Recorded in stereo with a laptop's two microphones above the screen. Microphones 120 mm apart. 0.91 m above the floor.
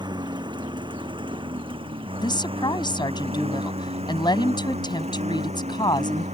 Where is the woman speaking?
40° left (ahead or behind).